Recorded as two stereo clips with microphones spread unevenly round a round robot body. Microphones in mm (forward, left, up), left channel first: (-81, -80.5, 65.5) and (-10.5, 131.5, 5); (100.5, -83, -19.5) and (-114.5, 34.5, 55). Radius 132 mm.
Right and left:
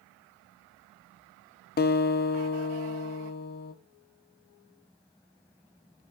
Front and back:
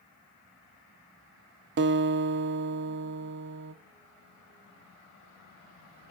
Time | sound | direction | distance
1.8 | a guitar | 160° right | 0.6 m